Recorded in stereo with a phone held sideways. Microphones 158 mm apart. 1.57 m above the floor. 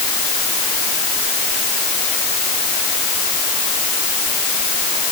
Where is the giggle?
No giggle in this recording.